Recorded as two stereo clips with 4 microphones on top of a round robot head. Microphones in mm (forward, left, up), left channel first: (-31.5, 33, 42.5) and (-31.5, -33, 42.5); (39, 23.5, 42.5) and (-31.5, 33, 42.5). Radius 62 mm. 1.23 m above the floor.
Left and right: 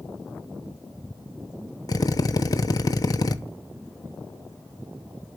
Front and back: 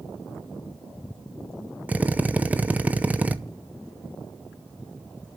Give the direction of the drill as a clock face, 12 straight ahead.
9 o'clock.